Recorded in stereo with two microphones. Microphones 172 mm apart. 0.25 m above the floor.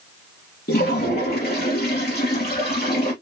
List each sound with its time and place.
0.7 s a toilet flushing: 65° left (ahead or behind), 2.5 m